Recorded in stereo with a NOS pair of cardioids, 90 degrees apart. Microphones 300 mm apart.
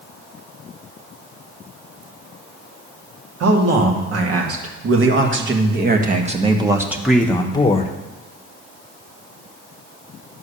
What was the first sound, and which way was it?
A man speaking, 60° right.